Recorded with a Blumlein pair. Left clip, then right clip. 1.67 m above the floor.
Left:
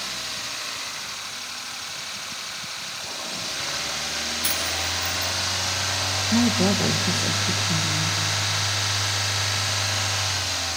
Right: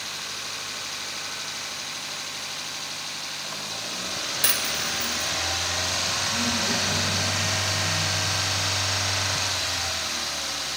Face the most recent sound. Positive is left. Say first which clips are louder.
# left 3 dB
turn(degrees=55)